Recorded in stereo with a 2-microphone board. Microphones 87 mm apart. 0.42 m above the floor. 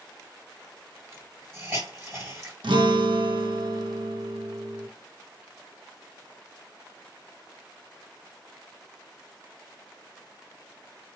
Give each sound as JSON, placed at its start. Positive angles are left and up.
{"t": 1.1, "sound": "a hiss", "side_deg": -30, "distance_m": 1.8}
{"t": 2.6, "sound": "a guitar", "side_deg": -75, "distance_m": 0.6}